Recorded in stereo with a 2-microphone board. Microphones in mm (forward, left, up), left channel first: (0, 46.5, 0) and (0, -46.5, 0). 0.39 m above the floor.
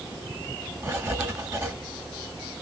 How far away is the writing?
About 0.9 m.